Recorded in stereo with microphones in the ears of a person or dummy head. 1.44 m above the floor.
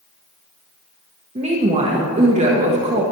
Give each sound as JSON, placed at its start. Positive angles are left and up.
{"t": 1.4, "sound": "a woman speaking", "side_deg": -30, "distance_m": 1.2}